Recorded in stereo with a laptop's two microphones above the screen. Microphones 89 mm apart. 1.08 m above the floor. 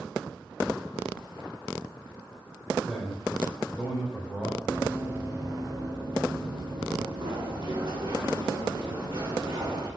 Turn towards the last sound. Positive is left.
turn(degrees=-70)  # may be behind; listen again after turning